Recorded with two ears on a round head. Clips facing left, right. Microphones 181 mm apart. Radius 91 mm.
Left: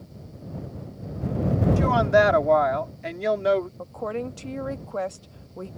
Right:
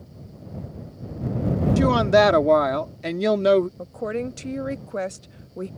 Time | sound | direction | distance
1.8 | a woman speaking | 50° right (ahead or behind) | ?
3.8 | a woman speaking | 25° right (ahead or behind) | ?